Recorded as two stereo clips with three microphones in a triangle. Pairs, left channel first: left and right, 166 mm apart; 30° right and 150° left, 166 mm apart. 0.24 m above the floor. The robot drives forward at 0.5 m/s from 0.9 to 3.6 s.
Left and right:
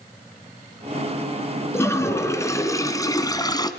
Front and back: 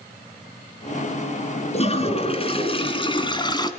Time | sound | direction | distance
1.7 | a toilet flushing | 15° left | 2.5 m